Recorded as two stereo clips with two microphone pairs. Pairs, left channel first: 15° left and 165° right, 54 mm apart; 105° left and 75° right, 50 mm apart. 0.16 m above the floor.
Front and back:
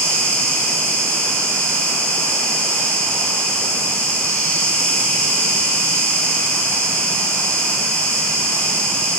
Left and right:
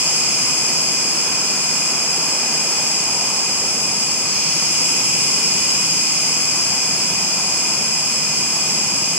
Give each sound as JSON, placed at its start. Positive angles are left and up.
{"t": 0.0, "sound": "an insect", "azimuth_deg": -25, "distance_m": 2.5}